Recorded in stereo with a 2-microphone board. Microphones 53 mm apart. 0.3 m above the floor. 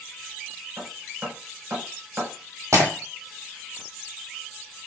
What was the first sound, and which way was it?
Hammering, 55° right (ahead or behind).